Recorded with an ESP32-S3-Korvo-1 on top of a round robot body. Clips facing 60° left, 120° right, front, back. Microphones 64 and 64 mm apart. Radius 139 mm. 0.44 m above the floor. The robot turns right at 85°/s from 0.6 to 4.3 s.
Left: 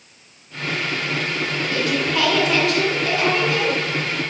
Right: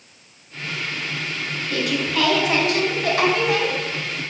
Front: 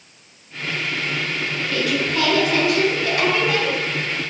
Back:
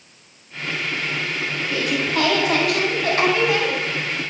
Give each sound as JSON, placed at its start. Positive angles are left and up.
{"t": 1.7, "sound": "a woman speaking", "azimuth_deg": 95, "distance_m": 4.0}